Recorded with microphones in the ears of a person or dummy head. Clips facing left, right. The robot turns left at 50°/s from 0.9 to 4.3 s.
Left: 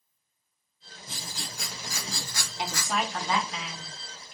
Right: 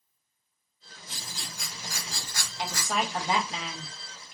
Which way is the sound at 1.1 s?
150° left.